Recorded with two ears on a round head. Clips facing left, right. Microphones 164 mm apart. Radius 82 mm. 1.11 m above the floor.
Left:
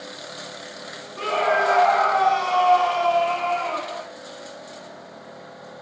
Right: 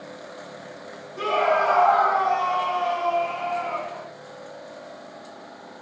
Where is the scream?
5° right (ahead or behind), 1.7 m; by 4.1 s 80° left, 3 m.